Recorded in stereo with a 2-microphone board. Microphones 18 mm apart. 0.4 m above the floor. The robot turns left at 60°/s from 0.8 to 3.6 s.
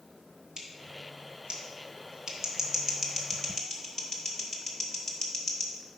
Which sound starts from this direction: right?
Scissors, at 0.6 s.